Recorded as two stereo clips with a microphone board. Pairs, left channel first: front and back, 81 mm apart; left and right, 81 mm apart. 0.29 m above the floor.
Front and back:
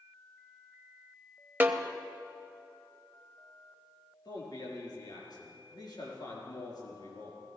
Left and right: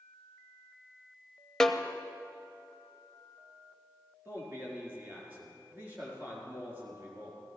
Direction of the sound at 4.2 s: 30° right.